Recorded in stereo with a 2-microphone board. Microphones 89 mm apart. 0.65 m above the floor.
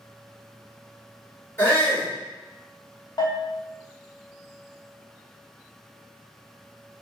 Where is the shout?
25° left (ahead or behind), 1.9 m.